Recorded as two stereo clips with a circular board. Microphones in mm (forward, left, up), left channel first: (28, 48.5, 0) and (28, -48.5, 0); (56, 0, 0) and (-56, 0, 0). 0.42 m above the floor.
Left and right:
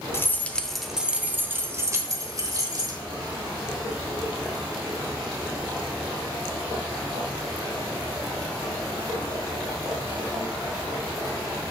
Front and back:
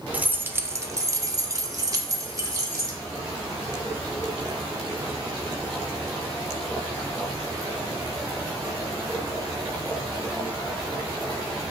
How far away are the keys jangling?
About 0.8 m.